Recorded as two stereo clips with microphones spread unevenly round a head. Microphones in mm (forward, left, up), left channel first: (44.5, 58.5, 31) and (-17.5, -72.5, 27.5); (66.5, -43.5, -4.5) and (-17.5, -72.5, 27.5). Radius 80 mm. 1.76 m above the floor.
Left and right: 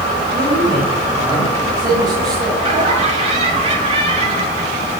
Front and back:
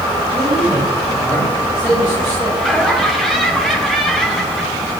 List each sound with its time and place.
0.3 s a man speaking: 70° right, 8.5 m; by 2.5 s 50° right, 9.5 m
2.6 s laughter: 70° right, 4.5 m